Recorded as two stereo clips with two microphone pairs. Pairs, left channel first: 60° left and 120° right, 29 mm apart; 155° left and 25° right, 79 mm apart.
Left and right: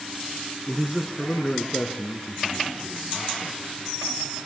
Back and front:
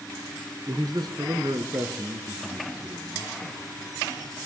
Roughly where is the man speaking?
Ahead right.